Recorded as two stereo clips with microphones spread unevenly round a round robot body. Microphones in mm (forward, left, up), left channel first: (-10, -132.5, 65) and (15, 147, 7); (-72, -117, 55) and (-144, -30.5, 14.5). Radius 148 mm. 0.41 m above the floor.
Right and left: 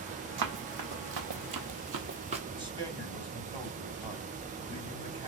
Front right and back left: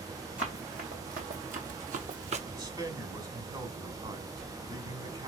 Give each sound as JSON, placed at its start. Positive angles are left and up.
{"t": 0.4, "sound": "running footsteps", "azimuth_deg": 75, "distance_m": 1.2}
{"t": 2.5, "sound": "a man speaking", "azimuth_deg": 145, "distance_m": 1.9}